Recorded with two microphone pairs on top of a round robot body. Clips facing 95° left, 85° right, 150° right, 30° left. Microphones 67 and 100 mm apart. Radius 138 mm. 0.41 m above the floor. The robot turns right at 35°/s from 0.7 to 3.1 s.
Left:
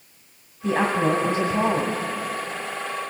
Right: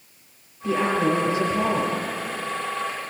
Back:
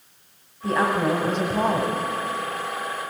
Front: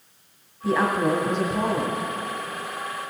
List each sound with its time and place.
0.6 s a woman speaking: 135° left, 2 m; by 2.0 s straight behind, 2 m